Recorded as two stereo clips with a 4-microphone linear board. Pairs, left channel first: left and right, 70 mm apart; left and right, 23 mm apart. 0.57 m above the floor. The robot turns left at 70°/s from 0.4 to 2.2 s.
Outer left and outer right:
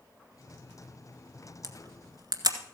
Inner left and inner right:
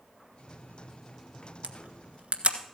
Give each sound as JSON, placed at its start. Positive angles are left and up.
{"t": 1.6, "sound": "a camera shutter", "side_deg": -55, "distance_m": 1.4}